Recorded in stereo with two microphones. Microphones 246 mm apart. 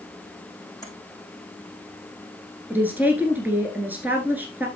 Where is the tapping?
15° left (ahead or behind), 4.5 m.